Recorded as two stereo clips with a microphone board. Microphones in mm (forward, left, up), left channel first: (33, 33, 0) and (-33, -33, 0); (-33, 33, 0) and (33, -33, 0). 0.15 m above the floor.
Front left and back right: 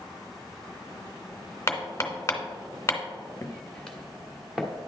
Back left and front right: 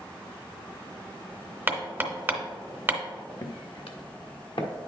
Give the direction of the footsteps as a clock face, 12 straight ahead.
9 o'clock.